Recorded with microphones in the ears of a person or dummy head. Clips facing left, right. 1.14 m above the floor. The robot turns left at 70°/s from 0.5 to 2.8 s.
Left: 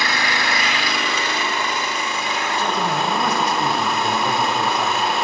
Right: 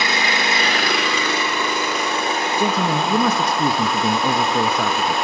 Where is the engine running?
20° right, 1.9 m; by 5.2 s straight behind, 1.9 m.